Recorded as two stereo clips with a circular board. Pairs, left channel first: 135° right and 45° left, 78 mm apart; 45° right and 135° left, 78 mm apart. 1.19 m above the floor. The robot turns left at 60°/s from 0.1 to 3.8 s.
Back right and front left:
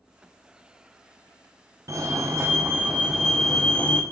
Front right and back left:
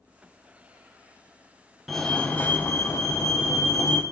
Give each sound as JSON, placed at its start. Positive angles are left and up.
{"t": 1.9, "sound": "a fire alarm", "azimuth_deg": 45, "distance_m": 1.6}